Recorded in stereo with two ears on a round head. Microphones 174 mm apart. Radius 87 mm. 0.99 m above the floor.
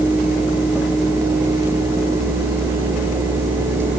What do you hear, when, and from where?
Only background noise.